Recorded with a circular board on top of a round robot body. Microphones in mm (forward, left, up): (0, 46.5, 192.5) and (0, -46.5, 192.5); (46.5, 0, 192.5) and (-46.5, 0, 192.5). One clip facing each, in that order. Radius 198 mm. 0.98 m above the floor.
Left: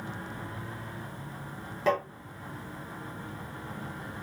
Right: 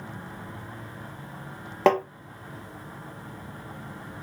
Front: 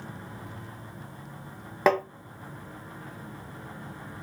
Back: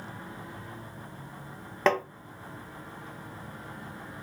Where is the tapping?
80° right, 0.9 m.